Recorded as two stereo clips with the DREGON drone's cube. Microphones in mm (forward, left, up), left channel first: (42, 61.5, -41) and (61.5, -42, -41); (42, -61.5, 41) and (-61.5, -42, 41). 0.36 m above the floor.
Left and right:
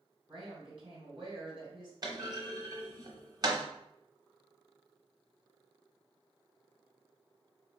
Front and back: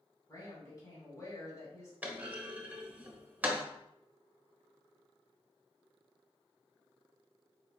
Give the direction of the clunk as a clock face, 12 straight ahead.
4 o'clock.